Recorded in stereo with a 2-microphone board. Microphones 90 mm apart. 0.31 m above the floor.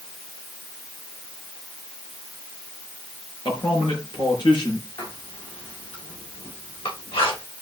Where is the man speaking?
60° left (ahead or behind), 4.5 m.